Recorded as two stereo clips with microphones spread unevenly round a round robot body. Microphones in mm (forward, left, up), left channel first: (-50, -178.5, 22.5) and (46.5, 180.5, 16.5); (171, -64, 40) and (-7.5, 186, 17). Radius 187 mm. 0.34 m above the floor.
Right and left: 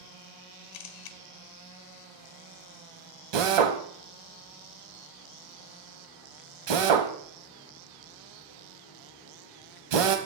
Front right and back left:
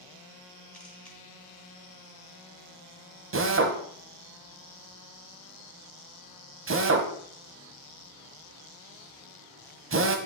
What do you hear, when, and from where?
0.7 s a camera shutter: 145° right, 0.7 m
3.3 s a drill: 80° left, 1.2 m